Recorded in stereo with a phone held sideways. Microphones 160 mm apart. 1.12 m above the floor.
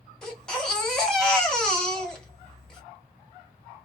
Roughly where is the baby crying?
Centre.